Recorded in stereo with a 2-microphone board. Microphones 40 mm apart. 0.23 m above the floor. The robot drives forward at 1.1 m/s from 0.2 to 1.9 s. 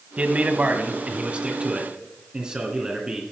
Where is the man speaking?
40° right (ahead or behind), 1.2 m; by 3.2 s 20° right (ahead or behind), 2 m.